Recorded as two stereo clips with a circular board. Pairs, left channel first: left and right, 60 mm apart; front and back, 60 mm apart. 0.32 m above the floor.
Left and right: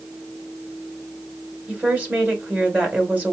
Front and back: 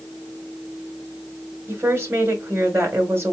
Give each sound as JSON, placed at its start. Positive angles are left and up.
{"t": 1.7, "sound": "a woman speaking", "azimuth_deg": -145, "distance_m": 2.0}